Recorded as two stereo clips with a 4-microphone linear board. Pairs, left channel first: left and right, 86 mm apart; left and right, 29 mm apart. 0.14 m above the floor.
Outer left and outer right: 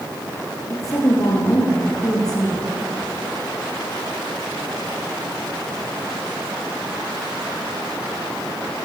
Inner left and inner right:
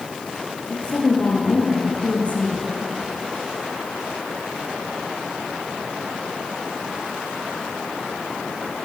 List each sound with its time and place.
0.7 s a woman speaking: 40° left (ahead or behind), 8.5 m; by 2.7 s 45° left (ahead or behind), 8.5 m